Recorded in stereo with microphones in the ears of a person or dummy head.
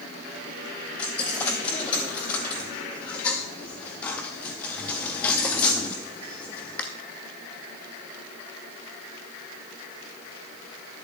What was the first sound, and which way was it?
A dropped coin, 5° left (ahead or behind).